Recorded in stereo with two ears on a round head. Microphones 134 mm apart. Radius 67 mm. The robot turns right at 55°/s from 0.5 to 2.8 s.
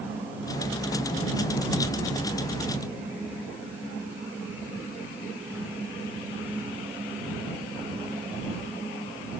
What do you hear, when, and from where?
Only background noise.